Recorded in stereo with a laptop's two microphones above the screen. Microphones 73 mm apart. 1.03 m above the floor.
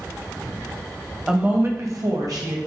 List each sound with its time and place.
1.3 s a woman speaking: 10° right (ahead or behind), 0.5 m; by 2.7 s 65° right (ahead or behind), 1.0 m